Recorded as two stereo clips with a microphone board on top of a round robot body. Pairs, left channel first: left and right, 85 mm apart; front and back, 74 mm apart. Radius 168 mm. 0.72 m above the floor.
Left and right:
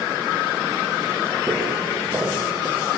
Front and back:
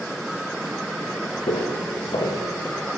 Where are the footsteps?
20° right, 4 m; by 2.9 s 25° right, 5 m.